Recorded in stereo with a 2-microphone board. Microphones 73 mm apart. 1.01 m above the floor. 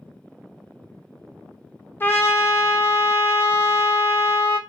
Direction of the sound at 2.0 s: 25° left (ahead or behind).